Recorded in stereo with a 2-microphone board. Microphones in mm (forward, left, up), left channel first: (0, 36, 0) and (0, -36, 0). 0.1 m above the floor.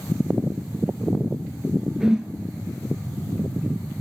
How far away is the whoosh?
About 1.6 m.